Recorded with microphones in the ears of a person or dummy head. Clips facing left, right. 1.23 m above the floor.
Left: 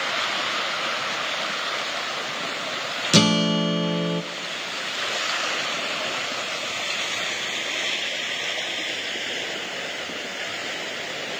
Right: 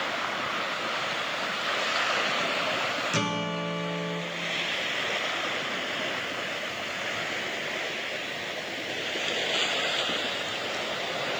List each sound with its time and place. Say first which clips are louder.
3.1 s a guitar: left 14 dB; 50° left (ahead or behind), 0.5 m